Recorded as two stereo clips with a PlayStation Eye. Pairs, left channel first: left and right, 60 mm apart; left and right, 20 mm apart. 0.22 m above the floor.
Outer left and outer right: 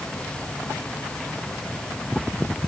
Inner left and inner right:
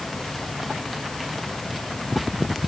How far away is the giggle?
I don't hear a giggle.